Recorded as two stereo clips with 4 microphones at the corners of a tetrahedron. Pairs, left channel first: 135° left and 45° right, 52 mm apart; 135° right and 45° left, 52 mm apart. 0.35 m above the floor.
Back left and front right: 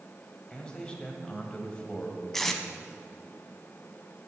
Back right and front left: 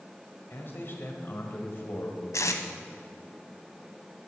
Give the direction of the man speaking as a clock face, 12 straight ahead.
5 o'clock.